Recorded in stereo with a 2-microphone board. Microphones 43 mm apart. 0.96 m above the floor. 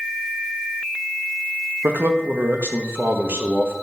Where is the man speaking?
65° right (ahead or behind), 1.1 m.